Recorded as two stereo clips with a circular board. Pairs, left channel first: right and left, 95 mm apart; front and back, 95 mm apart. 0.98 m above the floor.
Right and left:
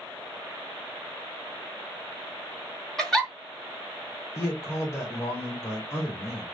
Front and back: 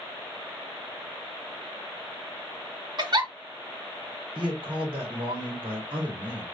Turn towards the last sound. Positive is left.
turn(degrees=-150)